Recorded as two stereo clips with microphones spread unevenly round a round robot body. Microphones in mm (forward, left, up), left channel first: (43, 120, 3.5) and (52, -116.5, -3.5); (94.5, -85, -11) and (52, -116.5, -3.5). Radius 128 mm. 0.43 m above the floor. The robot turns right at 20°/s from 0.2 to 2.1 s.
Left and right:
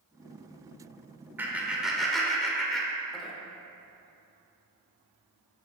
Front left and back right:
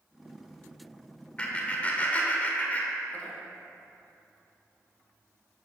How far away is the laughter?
About 1.7 m.